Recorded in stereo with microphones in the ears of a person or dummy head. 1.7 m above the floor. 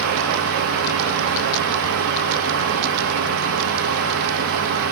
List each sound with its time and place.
0.0 s a fan: 55° right (ahead or behind), 2.5 m